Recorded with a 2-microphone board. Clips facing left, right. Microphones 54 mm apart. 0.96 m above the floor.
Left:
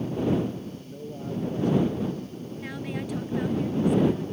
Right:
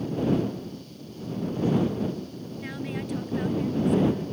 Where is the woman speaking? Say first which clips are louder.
Even; 5° left (ahead or behind).